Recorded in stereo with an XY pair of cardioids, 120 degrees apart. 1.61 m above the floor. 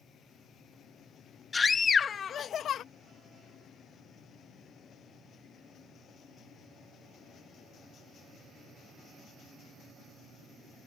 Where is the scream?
25° left; by 2.8 s 60° left.